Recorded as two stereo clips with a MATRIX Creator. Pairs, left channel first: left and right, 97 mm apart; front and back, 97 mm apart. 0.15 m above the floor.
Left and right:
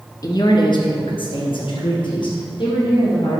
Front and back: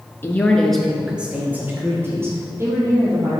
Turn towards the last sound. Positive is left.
turn(degrees=125)